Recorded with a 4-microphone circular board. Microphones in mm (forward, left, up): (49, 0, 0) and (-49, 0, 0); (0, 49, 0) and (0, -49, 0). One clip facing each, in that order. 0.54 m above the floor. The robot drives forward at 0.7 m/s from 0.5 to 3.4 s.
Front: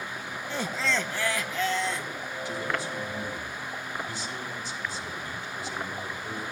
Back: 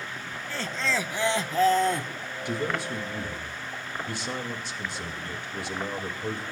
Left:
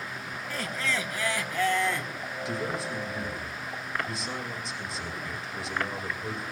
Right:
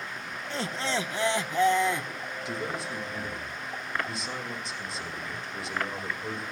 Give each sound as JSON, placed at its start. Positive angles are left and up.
{"t": 0.5, "sound": "laughter", "azimuth_deg": -50, "distance_m": 0.7}
{"t": 2.5, "sound": "a man speaking", "azimuth_deg": 180, "distance_m": 2.0}